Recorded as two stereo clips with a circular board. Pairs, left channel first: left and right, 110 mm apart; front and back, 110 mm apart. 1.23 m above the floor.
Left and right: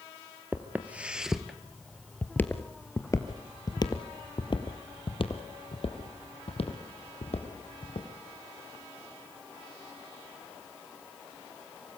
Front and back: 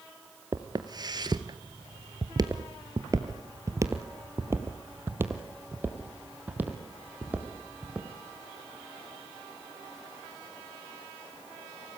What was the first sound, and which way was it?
Footsteps, 150° right.